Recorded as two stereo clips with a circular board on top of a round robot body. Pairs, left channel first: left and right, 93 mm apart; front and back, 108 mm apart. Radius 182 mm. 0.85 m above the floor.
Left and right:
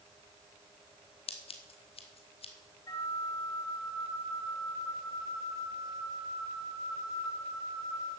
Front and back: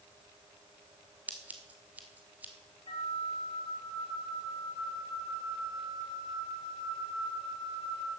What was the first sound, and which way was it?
Scissors, 105° left.